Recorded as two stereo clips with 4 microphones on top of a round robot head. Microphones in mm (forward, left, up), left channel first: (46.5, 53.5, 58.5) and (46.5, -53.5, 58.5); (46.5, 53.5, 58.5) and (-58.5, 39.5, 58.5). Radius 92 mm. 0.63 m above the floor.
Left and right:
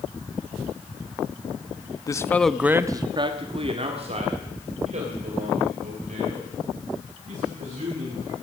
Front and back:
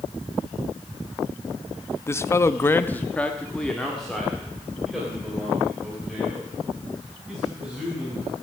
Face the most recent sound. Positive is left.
turn(degrees=-85)